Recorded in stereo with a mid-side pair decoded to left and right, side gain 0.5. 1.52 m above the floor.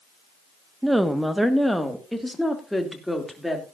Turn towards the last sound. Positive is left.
turn(degrees=5)